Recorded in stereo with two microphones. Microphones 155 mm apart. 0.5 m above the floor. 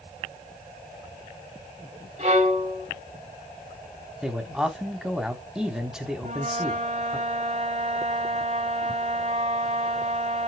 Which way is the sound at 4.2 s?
5° right (ahead or behind).